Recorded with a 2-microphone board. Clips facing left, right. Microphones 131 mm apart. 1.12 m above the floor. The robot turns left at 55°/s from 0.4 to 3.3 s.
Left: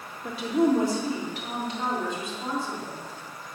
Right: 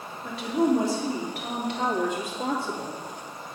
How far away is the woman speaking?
About 3 m.